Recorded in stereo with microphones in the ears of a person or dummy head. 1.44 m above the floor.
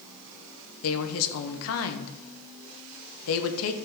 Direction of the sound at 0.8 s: 75° left (ahead or behind).